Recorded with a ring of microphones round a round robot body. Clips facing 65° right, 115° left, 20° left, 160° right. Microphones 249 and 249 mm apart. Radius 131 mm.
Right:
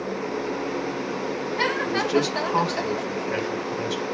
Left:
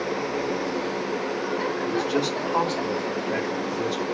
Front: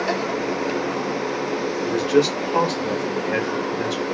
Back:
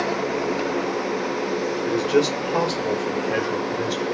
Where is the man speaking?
45° right, 0.9 m; by 4.0 s 95° right, 1.6 m.